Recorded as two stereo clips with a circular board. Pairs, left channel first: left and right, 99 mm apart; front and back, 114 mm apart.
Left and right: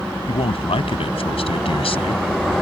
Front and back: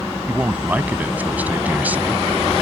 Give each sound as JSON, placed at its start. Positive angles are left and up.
{"t": 0.3, "sound": "a man speaking", "azimuth_deg": 105}